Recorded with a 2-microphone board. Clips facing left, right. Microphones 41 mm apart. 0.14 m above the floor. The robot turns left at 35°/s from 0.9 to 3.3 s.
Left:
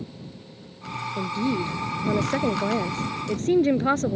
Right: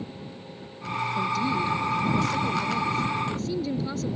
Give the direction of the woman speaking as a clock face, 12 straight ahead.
7 o'clock.